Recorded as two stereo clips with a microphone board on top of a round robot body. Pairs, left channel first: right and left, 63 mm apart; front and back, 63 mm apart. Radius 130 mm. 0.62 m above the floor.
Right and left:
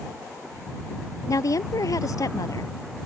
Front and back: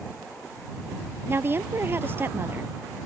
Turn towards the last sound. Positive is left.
turn(degrees=-120)